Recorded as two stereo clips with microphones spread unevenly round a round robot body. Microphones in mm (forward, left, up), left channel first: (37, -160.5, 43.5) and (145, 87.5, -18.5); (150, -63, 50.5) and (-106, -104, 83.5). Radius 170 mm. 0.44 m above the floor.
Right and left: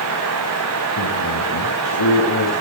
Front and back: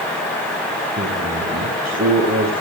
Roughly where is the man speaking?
Behind right.